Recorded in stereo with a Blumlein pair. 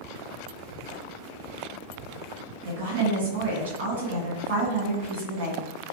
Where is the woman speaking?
55° right, 1.6 m.